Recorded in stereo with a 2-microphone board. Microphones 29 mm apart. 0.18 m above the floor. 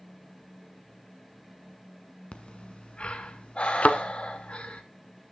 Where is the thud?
55° left (ahead or behind), 0.7 m.